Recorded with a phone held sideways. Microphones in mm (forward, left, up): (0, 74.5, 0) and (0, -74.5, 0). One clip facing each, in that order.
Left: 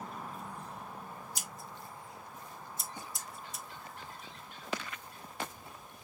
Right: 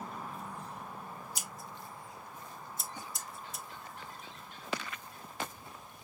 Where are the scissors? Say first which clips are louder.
Right 1 dB; centre (ahead or behind), 0.5 m.